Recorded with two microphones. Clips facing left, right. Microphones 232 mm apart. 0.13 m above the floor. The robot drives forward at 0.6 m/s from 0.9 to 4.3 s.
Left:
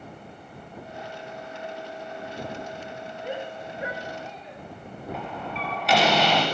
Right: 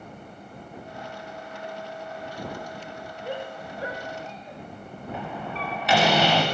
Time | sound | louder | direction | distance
3.2 | a shout | even | 15° left (ahead or behind) | 9.5 m
5.1 | a door slam | right 2 dB | centre (ahead or behind) | 9 m